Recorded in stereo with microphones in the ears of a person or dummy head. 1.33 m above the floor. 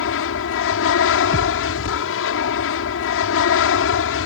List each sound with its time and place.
0.0 s an aircraft: 70° left (ahead or behind)
1.3 s a thud: 30° right (ahead or behind)